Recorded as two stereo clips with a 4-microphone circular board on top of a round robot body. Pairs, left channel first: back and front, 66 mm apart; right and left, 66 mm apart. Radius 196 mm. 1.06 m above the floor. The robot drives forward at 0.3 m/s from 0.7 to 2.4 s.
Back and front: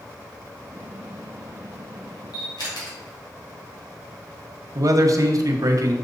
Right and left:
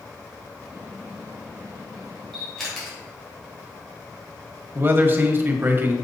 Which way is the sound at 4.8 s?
30° left.